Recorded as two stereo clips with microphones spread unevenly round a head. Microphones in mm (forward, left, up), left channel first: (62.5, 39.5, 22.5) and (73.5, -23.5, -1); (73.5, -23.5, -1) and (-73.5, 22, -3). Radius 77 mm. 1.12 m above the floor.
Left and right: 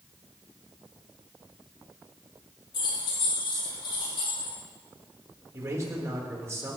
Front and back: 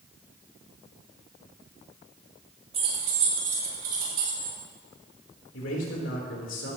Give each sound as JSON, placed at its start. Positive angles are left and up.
{"t": 2.7, "sound": "keys jangling", "azimuth_deg": 105, "distance_m": 5.0}
{"t": 5.5, "sound": "a man speaking", "azimuth_deg": -30, "distance_m": 3.5}